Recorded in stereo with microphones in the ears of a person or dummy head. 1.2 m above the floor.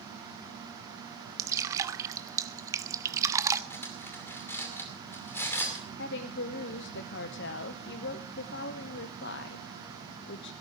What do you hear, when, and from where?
1.4 s dripping: 15° right (ahead or behind), 0.6 m
3.7 s cutlery clinking: 10° left (ahead or behind), 2.5 m
6.0 s a woman speaking: 60° left (ahead or behind), 0.7 m